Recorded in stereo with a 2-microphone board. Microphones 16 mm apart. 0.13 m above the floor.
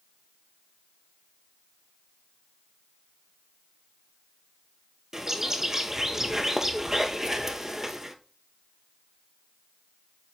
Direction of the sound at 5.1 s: 30° right (ahead or behind).